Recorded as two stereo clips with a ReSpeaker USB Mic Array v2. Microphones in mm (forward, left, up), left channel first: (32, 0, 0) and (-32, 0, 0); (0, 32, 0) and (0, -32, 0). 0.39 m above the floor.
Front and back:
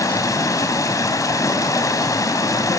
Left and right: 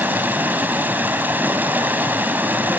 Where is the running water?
30° right, 2.5 m.